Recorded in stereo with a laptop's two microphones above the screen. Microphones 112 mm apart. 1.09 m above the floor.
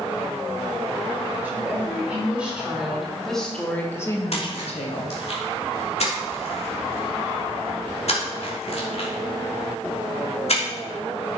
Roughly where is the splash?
Left.